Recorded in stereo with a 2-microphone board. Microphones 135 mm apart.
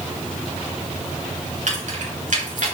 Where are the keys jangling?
65° right (ahead or behind), 3.5 m; by 2.7 s 75° right (ahead or behind), 4 m.